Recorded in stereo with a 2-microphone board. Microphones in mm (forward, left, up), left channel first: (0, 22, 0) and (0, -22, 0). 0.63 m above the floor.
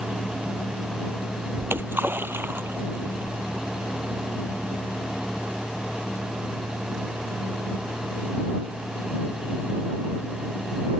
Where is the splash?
55° right (ahead or behind).